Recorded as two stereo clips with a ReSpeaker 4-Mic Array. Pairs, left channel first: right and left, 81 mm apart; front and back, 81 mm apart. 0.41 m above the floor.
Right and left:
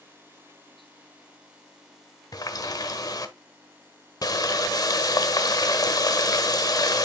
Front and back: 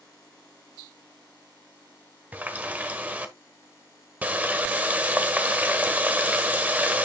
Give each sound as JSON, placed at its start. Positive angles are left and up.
{"t": 2.3, "sound": "a running tap", "azimuth_deg": -115, "distance_m": 1.1}